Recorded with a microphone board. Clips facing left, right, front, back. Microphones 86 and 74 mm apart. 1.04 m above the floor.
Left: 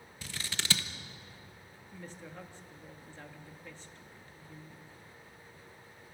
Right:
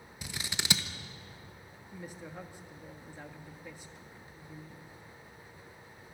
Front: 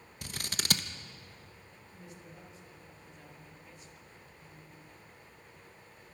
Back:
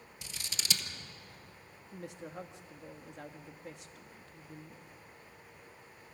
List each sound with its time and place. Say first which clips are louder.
0.2 s scissors: right 1 dB, front 5 dB; 20° right, 1.1 m
1.9 s a woman speaking: right 2 dB, back 8 dB; 170° right, 1.6 m